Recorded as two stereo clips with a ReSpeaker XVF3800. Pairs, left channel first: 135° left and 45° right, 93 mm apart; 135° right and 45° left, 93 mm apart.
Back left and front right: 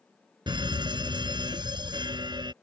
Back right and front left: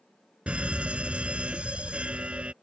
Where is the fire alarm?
30° right.